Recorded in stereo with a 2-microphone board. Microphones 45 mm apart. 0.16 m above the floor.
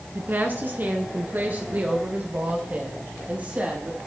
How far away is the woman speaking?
About 1.8 m.